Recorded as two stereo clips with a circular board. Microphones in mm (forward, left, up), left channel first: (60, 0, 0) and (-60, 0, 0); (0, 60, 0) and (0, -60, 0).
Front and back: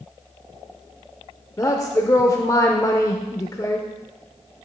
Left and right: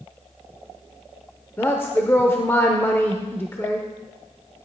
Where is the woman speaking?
35° left, 0.8 m.